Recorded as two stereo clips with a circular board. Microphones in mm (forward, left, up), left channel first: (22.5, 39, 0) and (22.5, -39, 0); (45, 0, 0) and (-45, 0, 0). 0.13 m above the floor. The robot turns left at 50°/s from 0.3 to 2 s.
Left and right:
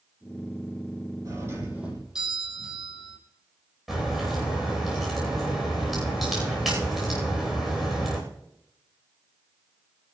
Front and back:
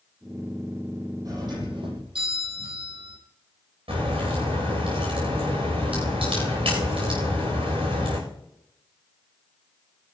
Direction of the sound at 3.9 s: 175° right.